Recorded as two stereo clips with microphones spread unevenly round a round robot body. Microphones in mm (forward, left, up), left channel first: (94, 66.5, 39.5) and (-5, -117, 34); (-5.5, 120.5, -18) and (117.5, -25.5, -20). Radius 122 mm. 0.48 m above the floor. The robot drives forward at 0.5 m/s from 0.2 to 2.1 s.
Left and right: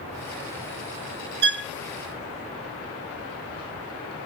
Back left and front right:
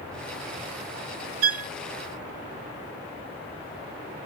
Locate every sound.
1.4 s a violin: 80° right; by 1.7 s 85° right